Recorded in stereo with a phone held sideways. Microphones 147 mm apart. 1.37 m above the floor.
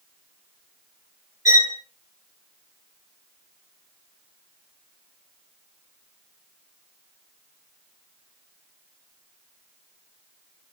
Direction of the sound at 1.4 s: 25° right (ahead or behind).